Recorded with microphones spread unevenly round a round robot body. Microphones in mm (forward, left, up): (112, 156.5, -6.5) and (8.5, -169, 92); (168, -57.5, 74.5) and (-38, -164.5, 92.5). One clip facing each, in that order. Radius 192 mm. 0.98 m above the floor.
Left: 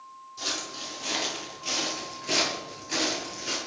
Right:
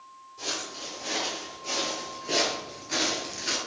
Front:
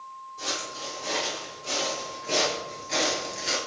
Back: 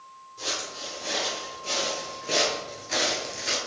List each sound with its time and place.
0.4 s footsteps: 130° left, 2 m; by 3.6 s 65° right, 1.1 m